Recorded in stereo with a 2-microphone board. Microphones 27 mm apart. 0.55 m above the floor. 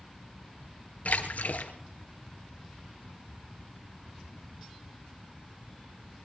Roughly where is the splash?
Left.